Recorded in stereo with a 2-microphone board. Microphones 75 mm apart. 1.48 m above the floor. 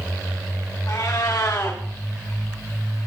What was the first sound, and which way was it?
A cat meowing, 60° left (ahead or behind).